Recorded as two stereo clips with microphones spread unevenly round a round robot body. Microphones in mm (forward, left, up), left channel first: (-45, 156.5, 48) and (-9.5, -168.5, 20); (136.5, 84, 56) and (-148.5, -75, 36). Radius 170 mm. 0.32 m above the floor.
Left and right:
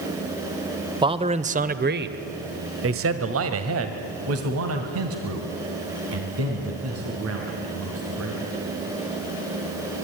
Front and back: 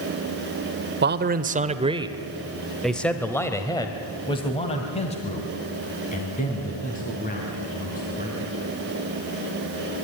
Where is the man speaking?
140° right, 1.2 m; by 8.5 s 35° right, 4.5 m.